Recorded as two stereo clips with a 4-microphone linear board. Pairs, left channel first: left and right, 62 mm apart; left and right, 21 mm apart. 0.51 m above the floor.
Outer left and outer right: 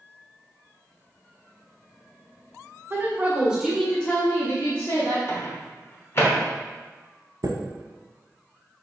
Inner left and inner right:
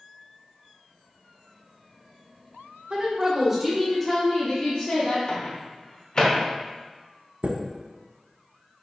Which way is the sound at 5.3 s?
40° left (ahead or behind).